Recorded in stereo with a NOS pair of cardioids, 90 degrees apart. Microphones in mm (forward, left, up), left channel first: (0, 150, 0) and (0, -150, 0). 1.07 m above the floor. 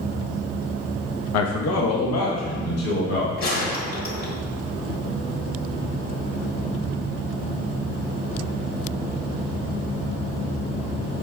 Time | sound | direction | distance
1.3 | a man speaking | 70° left | 0.8 m
3.4 | a gunshot | 60° left | 2.5 m